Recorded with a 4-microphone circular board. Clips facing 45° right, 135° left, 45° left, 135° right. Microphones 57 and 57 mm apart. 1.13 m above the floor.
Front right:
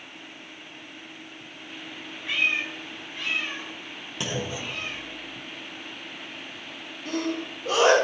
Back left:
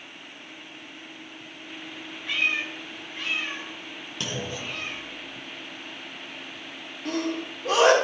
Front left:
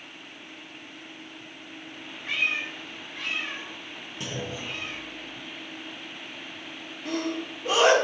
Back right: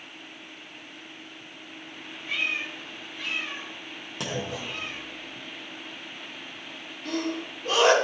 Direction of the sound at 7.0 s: 120° left.